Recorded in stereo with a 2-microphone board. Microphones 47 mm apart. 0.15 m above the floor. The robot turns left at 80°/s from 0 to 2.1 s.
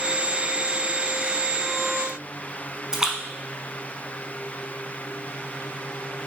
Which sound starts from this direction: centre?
A splash, at 2.9 s.